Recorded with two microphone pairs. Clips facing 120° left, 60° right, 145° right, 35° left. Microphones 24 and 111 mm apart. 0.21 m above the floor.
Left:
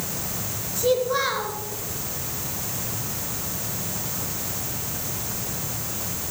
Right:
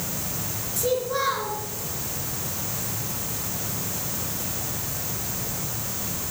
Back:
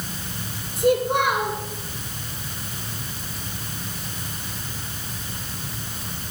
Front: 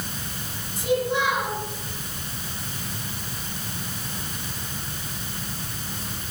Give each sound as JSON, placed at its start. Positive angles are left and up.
{"t": 0.8, "sound": "a child speaking", "azimuth_deg": -170, "distance_m": 2.0}